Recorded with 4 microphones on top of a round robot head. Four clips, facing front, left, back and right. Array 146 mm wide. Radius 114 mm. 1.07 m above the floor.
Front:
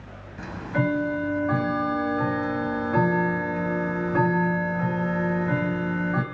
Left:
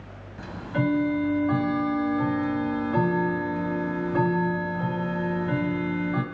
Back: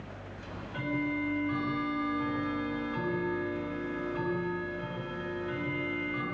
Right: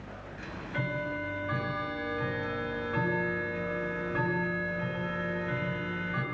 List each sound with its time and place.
0.4 s ticking: 40° left, 2.5 m